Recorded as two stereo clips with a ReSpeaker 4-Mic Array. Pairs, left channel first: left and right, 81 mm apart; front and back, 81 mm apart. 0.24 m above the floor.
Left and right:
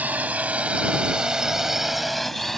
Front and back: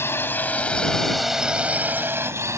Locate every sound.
0.0 s a drone: 30° right; by 2.6 s 175° left